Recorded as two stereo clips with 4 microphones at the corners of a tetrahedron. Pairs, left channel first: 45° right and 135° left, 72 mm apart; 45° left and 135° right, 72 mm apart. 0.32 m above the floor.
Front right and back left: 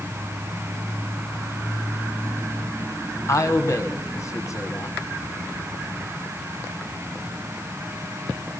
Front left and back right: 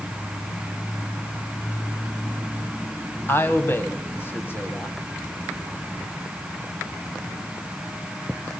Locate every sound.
3.3 s a man speaking: 10° right, 2 m